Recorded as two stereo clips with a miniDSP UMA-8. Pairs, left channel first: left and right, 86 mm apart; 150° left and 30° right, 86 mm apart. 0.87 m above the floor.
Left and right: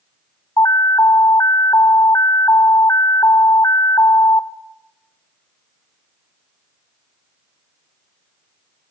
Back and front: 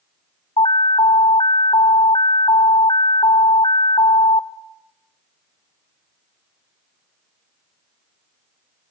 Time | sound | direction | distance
0.6 | an alarm | 140° left | 0.9 m